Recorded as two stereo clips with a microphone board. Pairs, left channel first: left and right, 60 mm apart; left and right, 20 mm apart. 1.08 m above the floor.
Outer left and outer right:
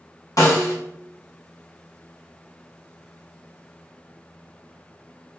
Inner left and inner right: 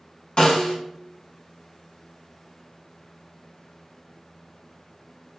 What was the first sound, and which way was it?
A snare drum, 60° left (ahead or behind).